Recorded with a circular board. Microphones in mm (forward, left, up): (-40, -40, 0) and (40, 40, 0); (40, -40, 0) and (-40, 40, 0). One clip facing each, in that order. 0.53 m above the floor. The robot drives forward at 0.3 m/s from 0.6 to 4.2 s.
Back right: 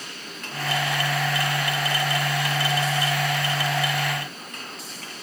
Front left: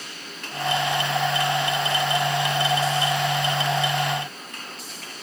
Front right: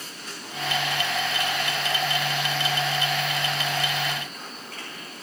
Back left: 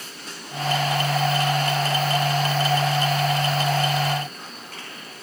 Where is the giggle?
I don't hear a giggle.